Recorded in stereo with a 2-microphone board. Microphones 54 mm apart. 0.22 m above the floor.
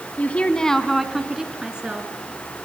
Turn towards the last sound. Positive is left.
turn(degrees=-20)  # may be behind; listen again after turning